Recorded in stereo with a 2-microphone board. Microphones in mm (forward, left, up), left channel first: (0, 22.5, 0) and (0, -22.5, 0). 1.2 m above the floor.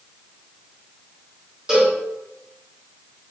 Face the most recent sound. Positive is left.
turn(degrees=-15)  # may be behind; listen again after turning